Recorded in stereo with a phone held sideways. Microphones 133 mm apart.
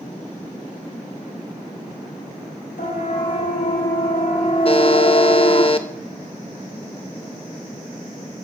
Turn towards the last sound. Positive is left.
turn(degrees=40)  # may be behind; listen again after turning